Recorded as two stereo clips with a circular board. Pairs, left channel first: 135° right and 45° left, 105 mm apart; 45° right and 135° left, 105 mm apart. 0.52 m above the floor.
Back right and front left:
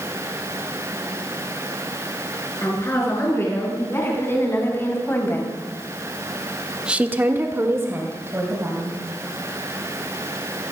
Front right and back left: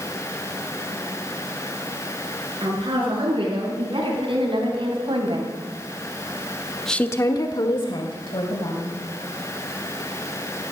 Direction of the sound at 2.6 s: 160° left.